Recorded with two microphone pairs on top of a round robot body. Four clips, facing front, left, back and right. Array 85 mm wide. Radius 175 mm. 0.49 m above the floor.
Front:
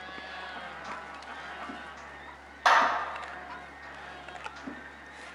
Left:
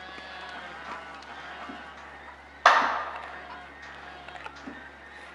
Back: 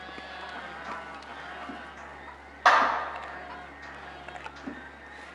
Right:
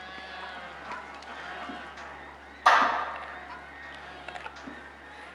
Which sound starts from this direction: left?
A clap, at 2.6 s.